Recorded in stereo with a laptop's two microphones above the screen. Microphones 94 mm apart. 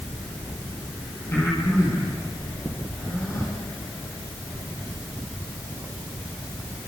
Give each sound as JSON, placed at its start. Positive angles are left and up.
{"t": 1.3, "sound": "breathing", "side_deg": 30, "distance_m": 7.5}